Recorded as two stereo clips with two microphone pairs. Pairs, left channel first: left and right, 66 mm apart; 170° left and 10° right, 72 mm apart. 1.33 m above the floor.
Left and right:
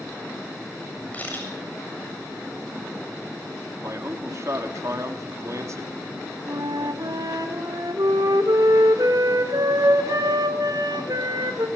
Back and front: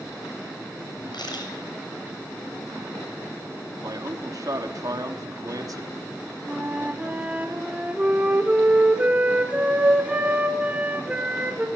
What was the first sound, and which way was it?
A camera shutter, 155° left.